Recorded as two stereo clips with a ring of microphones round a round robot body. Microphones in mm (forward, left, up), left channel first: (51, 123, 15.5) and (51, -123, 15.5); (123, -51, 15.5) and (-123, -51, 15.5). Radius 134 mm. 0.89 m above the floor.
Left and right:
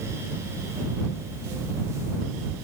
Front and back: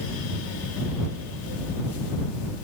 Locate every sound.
Only background noise.